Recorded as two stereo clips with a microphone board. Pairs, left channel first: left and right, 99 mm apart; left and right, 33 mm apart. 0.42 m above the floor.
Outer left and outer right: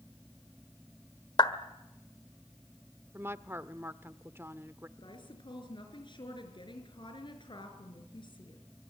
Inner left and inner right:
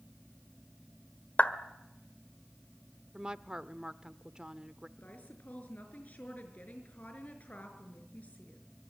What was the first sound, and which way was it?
A clap, 50° left (ahead or behind).